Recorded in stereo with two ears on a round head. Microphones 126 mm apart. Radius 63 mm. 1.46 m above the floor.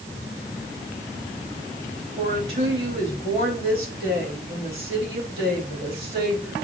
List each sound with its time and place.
2.2 s a woman speaking: 45° right (ahead or behind), 5 m